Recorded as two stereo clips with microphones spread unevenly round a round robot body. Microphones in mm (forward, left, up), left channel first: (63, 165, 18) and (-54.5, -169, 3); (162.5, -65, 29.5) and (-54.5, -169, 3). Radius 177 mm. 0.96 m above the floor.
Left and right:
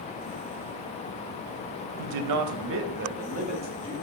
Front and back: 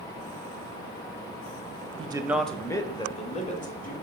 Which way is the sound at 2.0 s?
85° right.